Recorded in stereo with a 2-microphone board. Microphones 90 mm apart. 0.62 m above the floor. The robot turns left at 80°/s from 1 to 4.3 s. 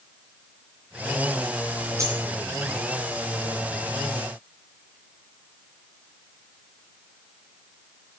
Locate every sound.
2.0 s a dropped coin: 30° right (ahead or behind), 2.5 m; by 2.2 s 45° right (ahead or behind), 2.5 m